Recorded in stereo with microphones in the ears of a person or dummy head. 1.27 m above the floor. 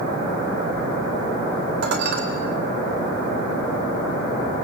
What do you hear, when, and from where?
1.8 s dishes clattering: 50° right (ahead or behind), 3 m